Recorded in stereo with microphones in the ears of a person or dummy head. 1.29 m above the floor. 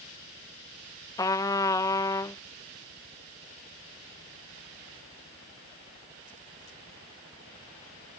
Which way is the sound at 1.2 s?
15° left (ahead or behind).